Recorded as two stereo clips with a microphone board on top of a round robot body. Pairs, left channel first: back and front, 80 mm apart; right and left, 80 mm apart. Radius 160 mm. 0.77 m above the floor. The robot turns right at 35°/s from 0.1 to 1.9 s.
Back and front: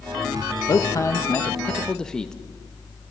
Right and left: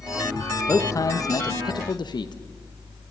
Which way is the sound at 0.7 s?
140° right.